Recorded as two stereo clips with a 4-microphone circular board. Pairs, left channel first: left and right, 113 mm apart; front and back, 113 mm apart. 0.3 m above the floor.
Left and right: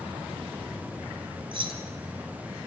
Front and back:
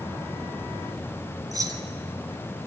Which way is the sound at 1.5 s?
125° right.